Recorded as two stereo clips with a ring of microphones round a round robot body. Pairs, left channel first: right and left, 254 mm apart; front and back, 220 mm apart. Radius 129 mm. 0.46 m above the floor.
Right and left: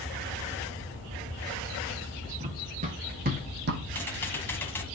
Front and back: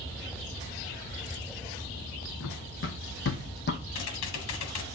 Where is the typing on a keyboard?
10° right, 1.3 m.